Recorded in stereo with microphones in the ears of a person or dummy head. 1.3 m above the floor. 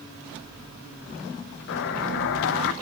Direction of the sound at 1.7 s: 65° left (ahead or behind).